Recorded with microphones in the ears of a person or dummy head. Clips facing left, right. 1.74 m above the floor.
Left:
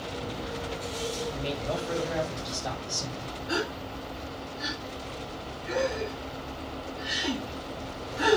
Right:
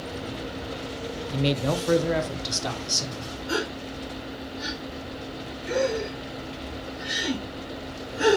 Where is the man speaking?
75° right (ahead or behind), 1.0 m; by 3.3 s 80° right, 3 m.